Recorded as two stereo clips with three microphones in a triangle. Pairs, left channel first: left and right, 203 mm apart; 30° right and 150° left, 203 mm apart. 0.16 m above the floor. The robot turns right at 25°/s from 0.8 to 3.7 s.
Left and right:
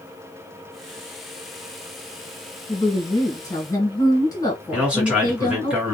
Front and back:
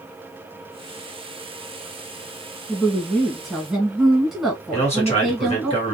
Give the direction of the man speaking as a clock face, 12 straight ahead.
12 o'clock.